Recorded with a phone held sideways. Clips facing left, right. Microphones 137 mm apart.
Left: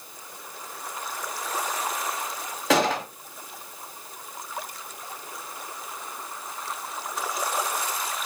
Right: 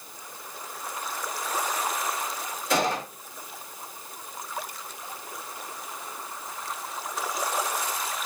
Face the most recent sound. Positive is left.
turn(degrees=85)